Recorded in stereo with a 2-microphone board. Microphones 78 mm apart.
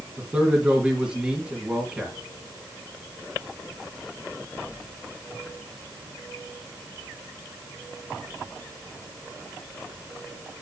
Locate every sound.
0.2 s a man speaking: 15° right (ahead or behind), 2.0 m